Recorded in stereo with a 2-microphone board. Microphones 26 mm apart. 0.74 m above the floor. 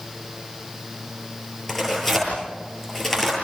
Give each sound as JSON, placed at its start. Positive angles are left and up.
{"t": 1.7, "sound": "tearing paper", "side_deg": 10, "distance_m": 9.5}